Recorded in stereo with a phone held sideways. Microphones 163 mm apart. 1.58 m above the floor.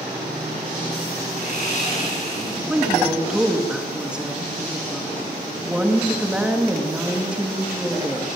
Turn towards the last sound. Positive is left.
turn(degrees=-5)  # may be behind; listen again after turning